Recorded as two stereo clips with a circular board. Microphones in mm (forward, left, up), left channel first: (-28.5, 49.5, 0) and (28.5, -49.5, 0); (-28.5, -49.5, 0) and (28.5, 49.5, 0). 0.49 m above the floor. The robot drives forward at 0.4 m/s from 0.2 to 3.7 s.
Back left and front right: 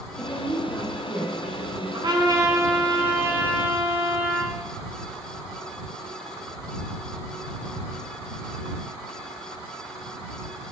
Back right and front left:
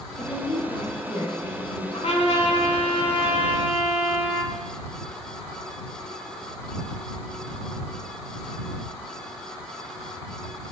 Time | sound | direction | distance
0.2 | a woman speaking | 165° right | 1.4 m
1.9 | a trumpet | 105° right | 1.0 m